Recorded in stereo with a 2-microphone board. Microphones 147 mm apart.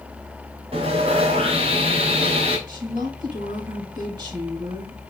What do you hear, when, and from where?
0.7 s sawing: 40° right (ahead or behind), 3.5 m
2.7 s a woman speaking: 25° right (ahead or behind), 6 m